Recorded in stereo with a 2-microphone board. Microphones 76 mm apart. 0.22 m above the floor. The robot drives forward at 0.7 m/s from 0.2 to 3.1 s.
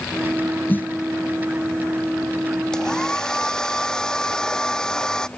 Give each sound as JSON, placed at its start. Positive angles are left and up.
{"t": 0.7, "sound": "a snare drum", "side_deg": 25}
{"t": 2.7, "sound": "a hair dryer", "side_deg": 10}